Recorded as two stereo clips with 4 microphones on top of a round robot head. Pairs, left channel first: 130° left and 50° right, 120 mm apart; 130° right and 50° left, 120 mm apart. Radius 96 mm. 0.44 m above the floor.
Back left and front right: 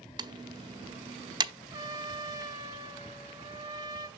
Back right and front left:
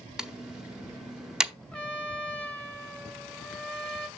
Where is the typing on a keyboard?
35° right, 0.9 m.